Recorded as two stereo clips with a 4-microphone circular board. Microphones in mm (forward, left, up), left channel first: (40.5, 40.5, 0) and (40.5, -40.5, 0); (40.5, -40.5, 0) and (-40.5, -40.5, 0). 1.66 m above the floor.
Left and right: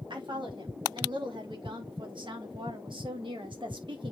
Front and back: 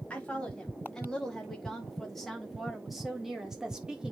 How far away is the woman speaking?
About 4.5 m.